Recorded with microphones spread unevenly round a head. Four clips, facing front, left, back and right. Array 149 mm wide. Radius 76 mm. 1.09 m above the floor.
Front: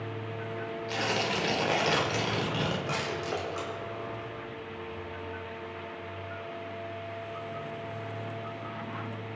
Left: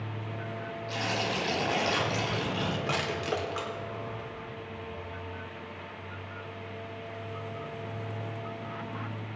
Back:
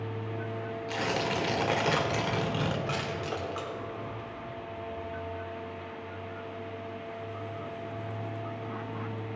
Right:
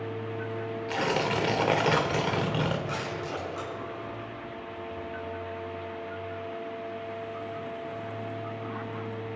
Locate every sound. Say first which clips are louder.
0.9 s tearing paper: right 5 dB, even; 80° right, 1.7 m
2.9 s crushing: left 2 dB, front 1 dB; 85° left, 4 m